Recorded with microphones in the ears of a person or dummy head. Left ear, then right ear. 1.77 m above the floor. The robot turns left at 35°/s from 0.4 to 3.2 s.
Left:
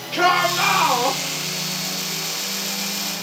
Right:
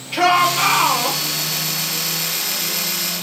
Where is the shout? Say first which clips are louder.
Right 3 dB; 10° right (ahead or behind), 3.5 m; by 1.2 s 15° left (ahead or behind), 3.5 m.